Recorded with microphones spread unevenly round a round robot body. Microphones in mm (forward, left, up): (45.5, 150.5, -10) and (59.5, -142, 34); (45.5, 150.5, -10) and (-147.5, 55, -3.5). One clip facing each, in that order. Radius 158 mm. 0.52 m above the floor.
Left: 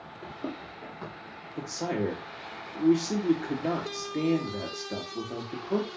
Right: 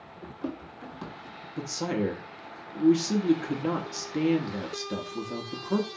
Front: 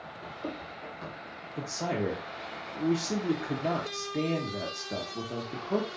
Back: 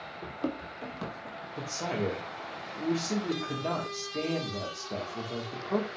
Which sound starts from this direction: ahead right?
A man speaking, at 1.6 s.